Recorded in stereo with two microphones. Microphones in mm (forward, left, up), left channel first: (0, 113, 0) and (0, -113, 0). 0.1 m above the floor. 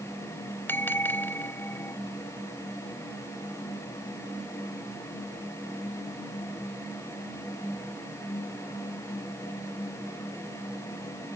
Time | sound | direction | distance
0.7 | a bell | 10° left (ahead or behind) | ?